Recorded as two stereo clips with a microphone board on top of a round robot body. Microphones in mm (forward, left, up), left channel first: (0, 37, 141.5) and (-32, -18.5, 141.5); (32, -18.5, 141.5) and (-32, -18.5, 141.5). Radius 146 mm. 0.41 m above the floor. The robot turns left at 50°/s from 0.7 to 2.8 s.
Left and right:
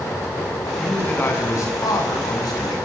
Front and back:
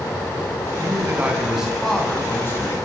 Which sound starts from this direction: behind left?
A man speaking, at 0.8 s.